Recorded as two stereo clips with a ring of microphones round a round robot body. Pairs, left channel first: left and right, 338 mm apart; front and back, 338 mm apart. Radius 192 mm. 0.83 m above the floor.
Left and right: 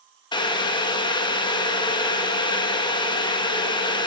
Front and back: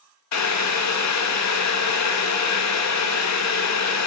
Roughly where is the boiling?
Ahead.